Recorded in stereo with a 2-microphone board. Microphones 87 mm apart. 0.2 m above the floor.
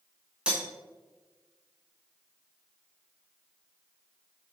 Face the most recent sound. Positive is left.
turn(degrees=-10)  # may be behind; listen again after turning